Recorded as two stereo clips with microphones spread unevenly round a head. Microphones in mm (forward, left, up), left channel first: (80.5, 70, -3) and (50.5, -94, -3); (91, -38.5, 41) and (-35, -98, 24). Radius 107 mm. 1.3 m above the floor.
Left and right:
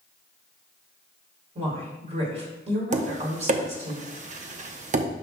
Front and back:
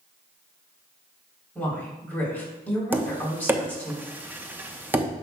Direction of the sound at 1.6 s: 50° right.